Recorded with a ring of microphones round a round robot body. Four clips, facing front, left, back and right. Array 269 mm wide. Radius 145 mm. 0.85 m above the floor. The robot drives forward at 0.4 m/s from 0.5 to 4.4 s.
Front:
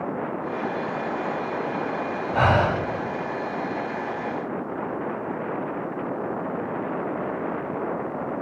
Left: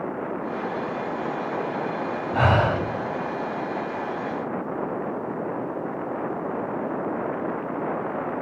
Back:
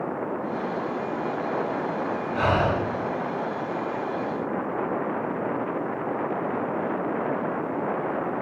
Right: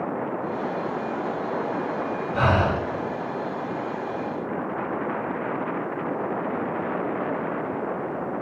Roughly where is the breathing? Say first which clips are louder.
Left 1 dB, front 3 dB; ahead left.